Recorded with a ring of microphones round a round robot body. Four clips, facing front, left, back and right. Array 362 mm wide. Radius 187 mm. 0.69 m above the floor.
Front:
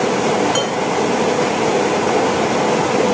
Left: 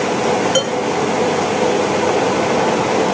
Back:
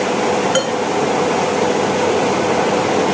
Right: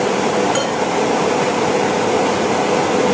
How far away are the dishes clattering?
About 3.5 m.